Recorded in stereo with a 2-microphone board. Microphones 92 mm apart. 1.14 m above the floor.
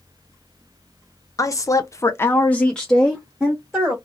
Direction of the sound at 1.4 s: 35° left (ahead or behind).